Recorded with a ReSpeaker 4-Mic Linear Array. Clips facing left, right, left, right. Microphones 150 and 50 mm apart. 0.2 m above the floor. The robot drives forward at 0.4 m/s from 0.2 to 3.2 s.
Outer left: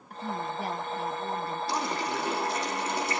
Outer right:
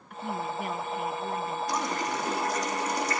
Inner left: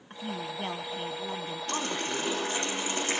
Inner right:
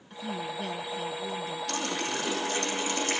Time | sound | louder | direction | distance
0.1 | a woman speaking | outer right 1 dB, inner right 1 dB | 40° left (ahead or behind) | 1.2 m
1.7 | a running tap | outer left 1 dB, inner left 1 dB | 30° left (ahead or behind) | 6.5 m